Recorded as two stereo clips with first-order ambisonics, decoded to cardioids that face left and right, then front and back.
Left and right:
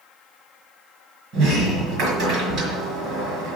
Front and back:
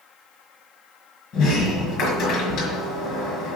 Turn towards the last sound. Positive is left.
turn(degrees=-40)